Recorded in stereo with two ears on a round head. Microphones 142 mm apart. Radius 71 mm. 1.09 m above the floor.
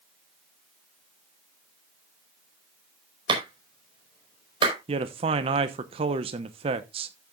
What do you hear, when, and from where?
3.3 s a clap: 30° right (ahead or behind), 4.5 m
4.9 s a man speaking: 35° right (ahead or behind), 0.8 m